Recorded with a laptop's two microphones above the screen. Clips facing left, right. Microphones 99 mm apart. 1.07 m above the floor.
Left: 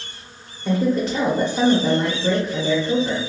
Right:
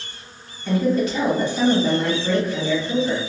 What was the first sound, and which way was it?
A woman speaking, 40° left (ahead or behind).